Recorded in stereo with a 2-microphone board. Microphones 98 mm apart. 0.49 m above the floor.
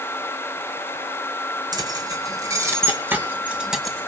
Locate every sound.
1.7 s keys jangling: 45° right (ahead or behind), 3.5 m; by 4.1 s 5° left (ahead or behind), 2 m